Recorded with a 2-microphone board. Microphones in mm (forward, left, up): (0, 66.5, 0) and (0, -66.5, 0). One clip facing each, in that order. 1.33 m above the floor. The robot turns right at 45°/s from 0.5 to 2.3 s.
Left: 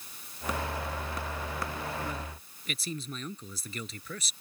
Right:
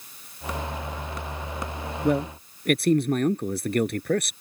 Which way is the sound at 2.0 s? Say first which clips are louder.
Right 15 dB; 75° right (ahead or behind).